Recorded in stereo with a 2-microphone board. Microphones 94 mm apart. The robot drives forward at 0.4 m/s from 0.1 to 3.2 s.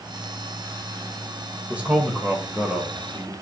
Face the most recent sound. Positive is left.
turn(degrees=-10)  # may be behind; listen again after turning